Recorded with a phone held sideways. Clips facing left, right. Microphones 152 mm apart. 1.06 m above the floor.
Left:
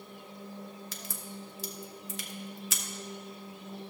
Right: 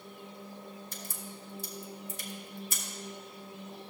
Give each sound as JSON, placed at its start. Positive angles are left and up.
{"t": 0.9, "sound": "a crack", "side_deg": 80, "distance_m": 0.9}